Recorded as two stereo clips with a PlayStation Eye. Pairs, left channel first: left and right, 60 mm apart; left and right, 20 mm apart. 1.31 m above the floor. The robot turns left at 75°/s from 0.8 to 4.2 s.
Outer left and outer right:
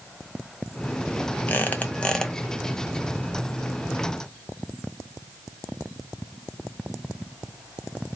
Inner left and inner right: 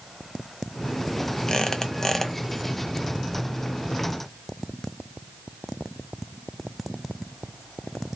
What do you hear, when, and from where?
1.5 s a squeak: 75° left, 0.7 m; by 2.3 s 10° left, 0.7 m